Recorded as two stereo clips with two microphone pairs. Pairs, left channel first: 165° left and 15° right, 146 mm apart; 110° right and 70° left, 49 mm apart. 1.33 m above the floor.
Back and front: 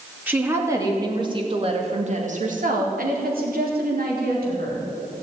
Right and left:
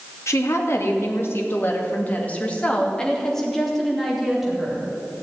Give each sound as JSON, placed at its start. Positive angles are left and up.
{"t": 0.3, "sound": "a woman speaking", "azimuth_deg": -95, "distance_m": 2.5}